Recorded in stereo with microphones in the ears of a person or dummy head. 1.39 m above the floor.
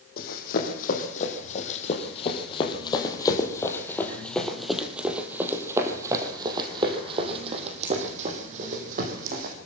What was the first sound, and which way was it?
Running footsteps, 45° left (ahead or behind).